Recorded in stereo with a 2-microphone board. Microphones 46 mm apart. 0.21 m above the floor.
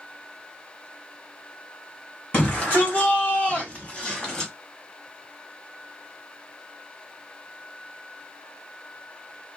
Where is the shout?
35° left (ahead or behind), 1.5 m; by 4.5 s 15° left (ahead or behind), 1.5 m.